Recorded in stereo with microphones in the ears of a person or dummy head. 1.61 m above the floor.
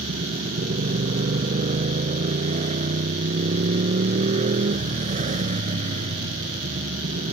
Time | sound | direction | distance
0.0 | a motorcycle | 35° right (ahead or behind) | ?